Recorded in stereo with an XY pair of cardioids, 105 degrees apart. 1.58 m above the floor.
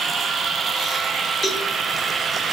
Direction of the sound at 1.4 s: 30° left.